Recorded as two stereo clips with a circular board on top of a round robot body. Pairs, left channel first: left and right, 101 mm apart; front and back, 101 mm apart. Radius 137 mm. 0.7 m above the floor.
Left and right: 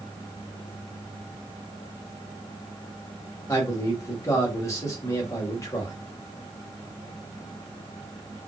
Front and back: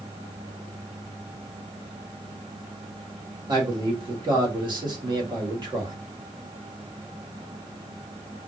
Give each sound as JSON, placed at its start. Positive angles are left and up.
{"t": 3.5, "sound": "a man speaking", "azimuth_deg": 145, "distance_m": 1.5}